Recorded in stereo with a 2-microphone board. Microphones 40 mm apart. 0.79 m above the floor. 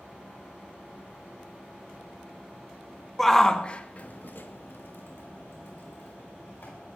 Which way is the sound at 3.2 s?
5° left (ahead or behind).